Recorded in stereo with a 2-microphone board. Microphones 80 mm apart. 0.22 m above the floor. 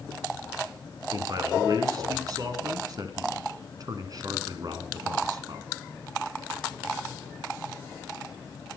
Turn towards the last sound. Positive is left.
turn(degrees=-50)  # may be behind; listen again after turning